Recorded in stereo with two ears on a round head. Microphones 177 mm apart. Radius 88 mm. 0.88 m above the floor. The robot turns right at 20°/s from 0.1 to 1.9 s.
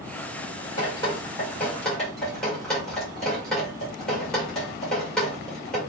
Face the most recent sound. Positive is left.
turn(degrees=5)  # may be behind; listen again after turning